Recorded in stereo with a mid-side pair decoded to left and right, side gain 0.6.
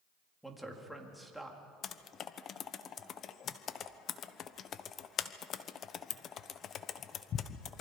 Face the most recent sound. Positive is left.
turn(degrees=45)